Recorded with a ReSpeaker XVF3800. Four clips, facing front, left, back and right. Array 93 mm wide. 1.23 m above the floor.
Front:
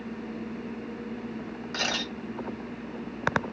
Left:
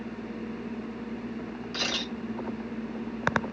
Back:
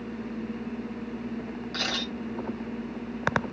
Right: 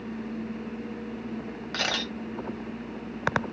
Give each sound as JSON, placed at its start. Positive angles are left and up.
{"t": 1.7, "sound": "a camera shutter", "azimuth_deg": -75, "distance_m": 1.2}